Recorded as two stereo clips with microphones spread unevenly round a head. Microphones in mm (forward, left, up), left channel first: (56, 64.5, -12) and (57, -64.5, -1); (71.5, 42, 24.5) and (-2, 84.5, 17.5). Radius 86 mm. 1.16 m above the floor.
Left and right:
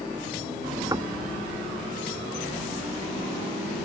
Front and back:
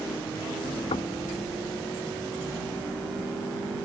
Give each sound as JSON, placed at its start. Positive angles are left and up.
{"t": 0.9, "sound": "knocking", "azimuth_deg": -30}